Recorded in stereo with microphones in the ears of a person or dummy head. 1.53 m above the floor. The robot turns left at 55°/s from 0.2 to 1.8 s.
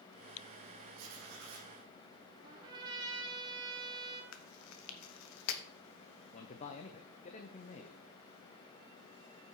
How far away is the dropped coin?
No dropped coin in this recording.